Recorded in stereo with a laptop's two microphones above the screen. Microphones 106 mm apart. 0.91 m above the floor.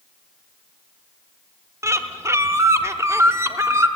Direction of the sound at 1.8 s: 25° right (ahead or behind).